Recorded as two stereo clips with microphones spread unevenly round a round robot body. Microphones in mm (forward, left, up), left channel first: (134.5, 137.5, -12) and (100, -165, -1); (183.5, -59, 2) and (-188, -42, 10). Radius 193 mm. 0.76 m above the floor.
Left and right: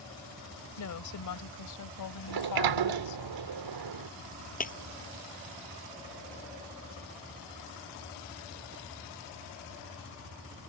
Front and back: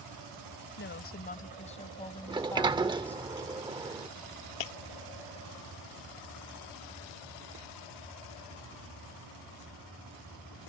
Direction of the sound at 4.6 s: 20° left.